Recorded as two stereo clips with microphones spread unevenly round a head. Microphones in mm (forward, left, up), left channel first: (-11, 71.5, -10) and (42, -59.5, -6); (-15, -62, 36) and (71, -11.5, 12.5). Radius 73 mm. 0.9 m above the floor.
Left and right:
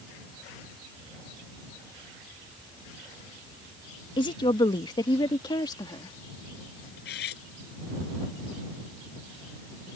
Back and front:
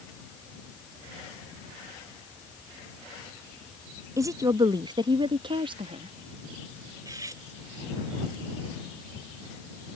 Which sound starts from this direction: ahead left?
A woman speaking, at 4.2 s.